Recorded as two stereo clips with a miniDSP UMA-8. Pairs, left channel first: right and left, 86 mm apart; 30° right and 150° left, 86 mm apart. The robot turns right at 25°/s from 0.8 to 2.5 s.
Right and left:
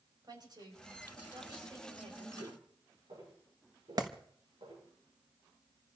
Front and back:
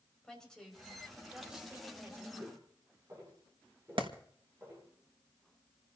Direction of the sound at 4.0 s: 130° left.